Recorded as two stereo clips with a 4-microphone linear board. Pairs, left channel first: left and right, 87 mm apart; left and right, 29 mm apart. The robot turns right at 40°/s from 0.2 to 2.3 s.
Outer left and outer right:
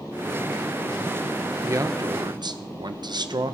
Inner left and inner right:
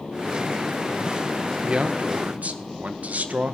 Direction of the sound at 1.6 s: 35° right (ahead or behind).